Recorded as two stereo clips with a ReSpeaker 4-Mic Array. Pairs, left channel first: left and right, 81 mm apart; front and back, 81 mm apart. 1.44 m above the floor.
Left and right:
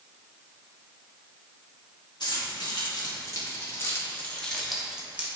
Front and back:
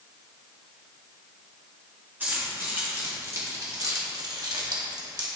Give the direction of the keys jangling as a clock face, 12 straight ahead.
8 o'clock.